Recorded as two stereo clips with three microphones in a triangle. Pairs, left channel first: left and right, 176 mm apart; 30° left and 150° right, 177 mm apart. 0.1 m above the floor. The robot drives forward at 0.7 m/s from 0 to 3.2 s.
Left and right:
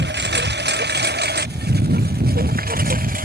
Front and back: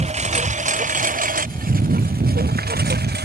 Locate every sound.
0.0 s a lawn mower: 100° right; by 3.2 s 125° right